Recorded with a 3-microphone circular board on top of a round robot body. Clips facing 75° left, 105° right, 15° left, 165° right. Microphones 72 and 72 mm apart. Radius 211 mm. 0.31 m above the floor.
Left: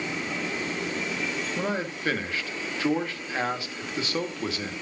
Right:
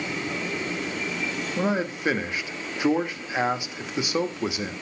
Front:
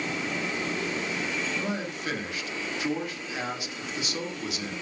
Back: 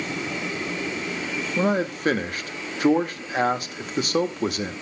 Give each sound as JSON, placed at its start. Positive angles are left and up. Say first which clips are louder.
{"t": 1.6, "sound": "a man speaking", "louder": "right 7 dB, back 9 dB", "azimuth_deg": -175, "distance_m": 1.2}